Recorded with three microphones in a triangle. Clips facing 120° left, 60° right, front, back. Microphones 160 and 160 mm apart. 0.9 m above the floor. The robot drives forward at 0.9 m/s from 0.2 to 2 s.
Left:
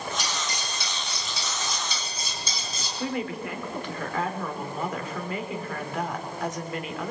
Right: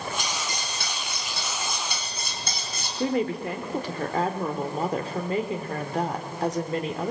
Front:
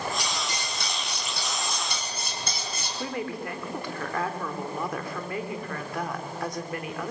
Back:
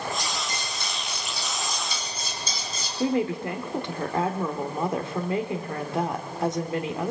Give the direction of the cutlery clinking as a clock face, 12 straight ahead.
1 o'clock.